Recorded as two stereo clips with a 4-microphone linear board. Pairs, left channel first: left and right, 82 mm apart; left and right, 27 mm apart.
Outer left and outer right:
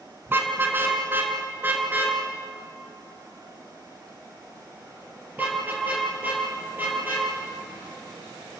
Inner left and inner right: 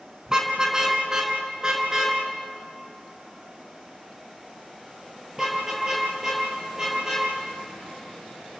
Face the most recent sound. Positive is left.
turn(degrees=-20)  # may be behind; listen again after turning